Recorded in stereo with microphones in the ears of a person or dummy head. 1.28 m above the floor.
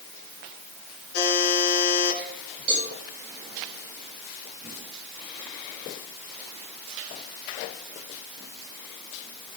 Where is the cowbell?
30° right (ahead or behind), 7.5 m.